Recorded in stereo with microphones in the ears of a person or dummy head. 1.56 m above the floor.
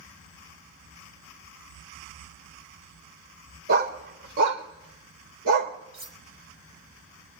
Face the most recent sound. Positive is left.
turn(degrees=-25)  # may be behind; listen again after turning